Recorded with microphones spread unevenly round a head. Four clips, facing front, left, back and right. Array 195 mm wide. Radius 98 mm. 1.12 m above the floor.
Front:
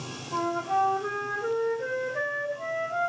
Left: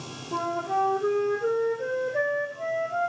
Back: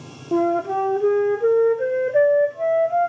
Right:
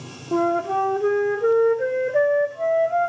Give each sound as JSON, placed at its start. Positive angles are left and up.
{"t": 0.3, "sound": "a flute", "azimuth_deg": -150, "distance_m": 0.6}